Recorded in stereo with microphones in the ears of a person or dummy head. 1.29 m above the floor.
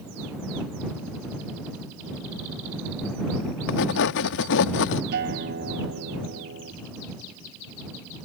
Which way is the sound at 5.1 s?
60° right (ahead or behind).